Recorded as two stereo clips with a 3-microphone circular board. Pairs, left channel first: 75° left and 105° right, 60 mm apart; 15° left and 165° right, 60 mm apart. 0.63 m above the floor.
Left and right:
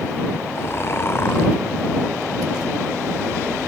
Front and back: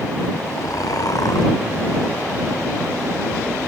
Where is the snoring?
30° left.